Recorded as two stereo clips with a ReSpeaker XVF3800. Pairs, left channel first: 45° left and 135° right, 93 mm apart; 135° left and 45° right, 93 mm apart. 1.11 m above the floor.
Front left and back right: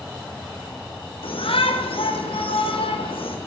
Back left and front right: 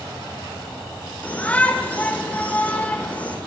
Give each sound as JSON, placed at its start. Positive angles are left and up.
{"t": 1.2, "sound": "a shout", "azimuth_deg": 60, "distance_m": 5.0}